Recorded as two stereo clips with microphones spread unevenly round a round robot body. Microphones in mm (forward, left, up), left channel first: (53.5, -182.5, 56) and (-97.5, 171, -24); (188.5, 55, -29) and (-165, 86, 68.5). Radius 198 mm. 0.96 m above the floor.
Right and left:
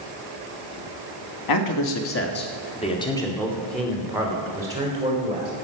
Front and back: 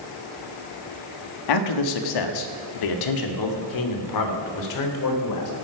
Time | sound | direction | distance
1.5 | a man speaking | 25° right | 1.6 m